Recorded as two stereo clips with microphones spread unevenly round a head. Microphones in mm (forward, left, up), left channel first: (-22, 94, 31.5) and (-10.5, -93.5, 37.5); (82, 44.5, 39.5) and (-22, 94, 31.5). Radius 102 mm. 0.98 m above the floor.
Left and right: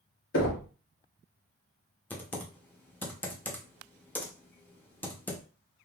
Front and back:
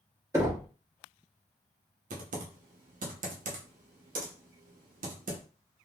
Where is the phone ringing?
No phone ringing in this recording.